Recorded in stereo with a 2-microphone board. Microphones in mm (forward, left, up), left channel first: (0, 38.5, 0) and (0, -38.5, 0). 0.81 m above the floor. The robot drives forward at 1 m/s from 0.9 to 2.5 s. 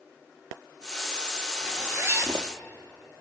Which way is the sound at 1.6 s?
25° right (ahead or behind).